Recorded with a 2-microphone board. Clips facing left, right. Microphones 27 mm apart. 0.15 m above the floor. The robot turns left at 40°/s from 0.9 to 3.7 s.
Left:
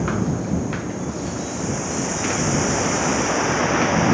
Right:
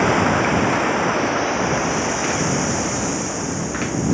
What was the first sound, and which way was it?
Running water, 110° right.